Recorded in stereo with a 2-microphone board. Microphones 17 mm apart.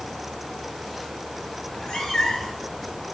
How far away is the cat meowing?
About 3 m.